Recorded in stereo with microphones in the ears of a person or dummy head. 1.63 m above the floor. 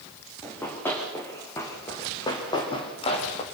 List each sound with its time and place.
0.4 s running footsteps: 10° left (ahead or behind), 8 m; by 3.4 s 40° left (ahead or behind), 4.5 m